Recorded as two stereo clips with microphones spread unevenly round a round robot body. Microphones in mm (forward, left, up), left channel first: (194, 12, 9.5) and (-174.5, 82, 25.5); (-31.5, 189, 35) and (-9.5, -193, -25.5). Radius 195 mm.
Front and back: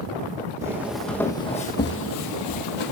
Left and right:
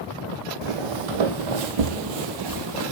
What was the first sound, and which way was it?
Footsteps, 110° right.